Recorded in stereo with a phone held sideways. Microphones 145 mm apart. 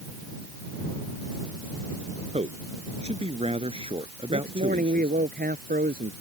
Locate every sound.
2.3 s a man speaking: 45° right (ahead or behind); by 5.1 s 40° right (ahead or behind)
4.3 s a man speaking: 80° right